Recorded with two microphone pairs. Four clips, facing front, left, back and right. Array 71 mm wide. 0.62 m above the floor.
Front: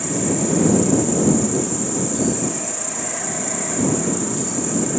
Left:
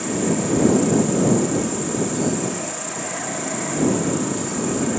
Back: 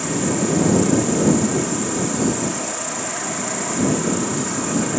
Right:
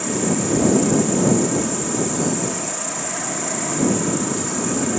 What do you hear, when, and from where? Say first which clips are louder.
0.0 s an insect: even, back 1 dB; 150° right